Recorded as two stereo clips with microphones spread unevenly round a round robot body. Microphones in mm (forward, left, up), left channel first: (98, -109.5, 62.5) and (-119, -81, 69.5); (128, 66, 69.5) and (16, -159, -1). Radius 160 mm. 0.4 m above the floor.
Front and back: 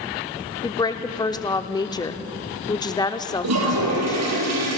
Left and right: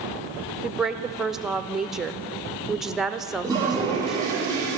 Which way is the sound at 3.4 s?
160° left.